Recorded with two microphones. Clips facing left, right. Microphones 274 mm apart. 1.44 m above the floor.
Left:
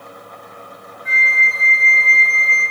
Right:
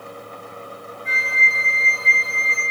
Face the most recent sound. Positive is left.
turn(degrees=0)  # may be behind; listen again after turning